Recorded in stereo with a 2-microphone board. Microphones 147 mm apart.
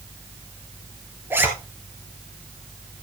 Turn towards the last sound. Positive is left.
turn(degrees=-15)  # may be behind; listen again after turning